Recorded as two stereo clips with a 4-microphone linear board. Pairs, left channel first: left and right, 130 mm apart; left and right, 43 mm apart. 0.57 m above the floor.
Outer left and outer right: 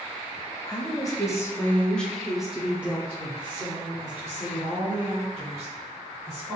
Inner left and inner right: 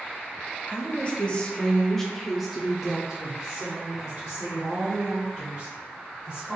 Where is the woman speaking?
30° left (ahead or behind), 0.8 m; by 6.5 s 25° right (ahead or behind), 2.5 m.